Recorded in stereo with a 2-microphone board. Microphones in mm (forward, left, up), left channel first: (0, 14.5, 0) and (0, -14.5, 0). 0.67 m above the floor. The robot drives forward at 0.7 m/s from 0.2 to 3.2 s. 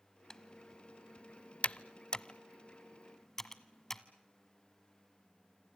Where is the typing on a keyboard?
20° left (ahead or behind), 1.0 m; by 4.0 s 15° left (ahead or behind), 1.3 m.